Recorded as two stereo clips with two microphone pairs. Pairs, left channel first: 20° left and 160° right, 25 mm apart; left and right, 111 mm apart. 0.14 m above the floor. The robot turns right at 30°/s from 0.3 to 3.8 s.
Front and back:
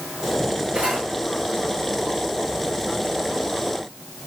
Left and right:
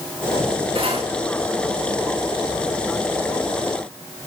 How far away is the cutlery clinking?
About 7.5 m.